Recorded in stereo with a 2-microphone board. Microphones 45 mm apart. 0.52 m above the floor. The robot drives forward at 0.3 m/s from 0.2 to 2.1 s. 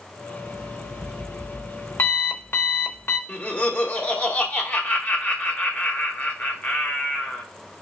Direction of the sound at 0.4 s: 70° left (ahead or behind).